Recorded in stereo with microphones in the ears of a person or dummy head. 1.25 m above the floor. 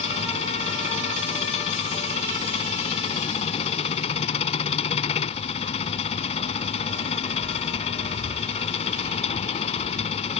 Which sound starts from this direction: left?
An engine running, at 0.0 s.